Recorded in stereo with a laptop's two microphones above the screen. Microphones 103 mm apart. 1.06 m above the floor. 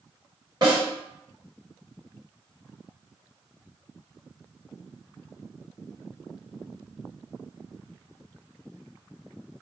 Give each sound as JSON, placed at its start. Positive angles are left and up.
{"t": 0.6, "sound": "a snare drum", "side_deg": -45, "distance_m": 1.5}